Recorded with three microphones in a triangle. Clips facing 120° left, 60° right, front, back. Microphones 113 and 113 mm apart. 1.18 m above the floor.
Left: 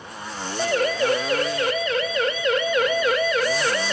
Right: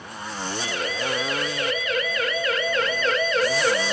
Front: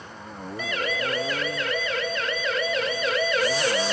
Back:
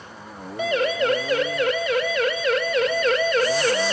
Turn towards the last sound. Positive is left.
turn(degrees=-140)